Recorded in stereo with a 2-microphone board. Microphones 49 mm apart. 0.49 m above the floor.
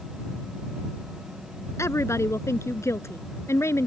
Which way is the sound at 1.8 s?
75° left (ahead or behind).